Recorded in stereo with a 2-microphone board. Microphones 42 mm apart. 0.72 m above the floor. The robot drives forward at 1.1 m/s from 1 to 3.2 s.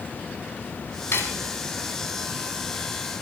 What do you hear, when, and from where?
1.1 s cutlery clinking: 80° left, 4 m; by 1.5 s 75° left (ahead or behind), 4 m